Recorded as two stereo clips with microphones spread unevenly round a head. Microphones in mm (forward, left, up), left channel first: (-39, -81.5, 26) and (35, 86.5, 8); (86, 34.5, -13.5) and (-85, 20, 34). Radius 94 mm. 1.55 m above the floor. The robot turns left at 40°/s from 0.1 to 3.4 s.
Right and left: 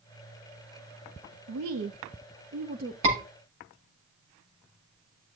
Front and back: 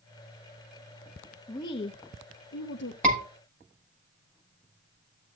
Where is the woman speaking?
75° left, 0.9 m; by 2.9 s 15° left, 0.9 m.